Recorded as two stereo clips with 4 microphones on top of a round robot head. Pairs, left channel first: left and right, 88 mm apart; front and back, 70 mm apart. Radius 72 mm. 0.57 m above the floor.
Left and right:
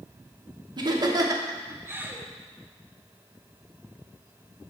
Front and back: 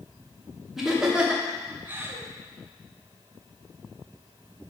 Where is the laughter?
100° right, 1.2 m; by 2.3 s 160° right, 0.9 m.